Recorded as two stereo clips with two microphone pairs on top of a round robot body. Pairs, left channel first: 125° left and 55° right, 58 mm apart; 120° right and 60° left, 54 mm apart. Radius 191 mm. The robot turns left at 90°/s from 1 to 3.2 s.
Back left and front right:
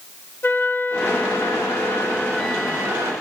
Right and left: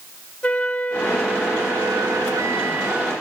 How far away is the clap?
I don't hear a clap.